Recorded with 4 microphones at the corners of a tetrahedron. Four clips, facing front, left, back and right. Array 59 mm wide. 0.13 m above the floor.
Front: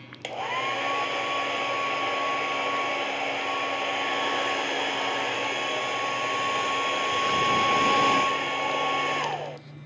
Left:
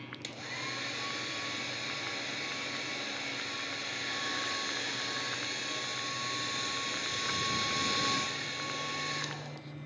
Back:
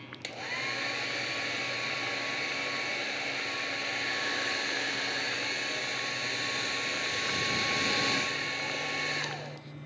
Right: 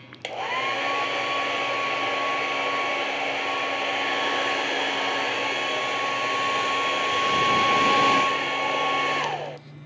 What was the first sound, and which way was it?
A hair dryer, 60° right.